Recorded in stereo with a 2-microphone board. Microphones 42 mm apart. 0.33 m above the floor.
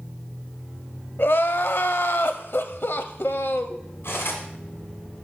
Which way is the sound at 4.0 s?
70° left (ahead or behind).